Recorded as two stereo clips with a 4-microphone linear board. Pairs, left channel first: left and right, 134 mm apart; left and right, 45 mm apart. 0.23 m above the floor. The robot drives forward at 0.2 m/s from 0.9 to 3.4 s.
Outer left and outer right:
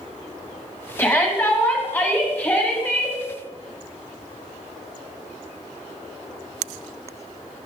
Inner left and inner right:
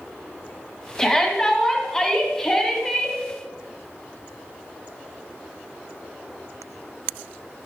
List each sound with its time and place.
1.0 s a shout: 15° left (ahead or behind), 1.8 m